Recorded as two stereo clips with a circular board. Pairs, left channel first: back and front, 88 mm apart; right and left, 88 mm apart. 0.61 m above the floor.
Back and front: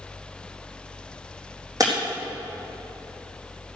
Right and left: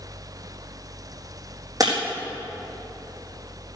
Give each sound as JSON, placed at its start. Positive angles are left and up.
{"t": 1.8, "sound": "breaking glass", "azimuth_deg": 45, "distance_m": 4.0}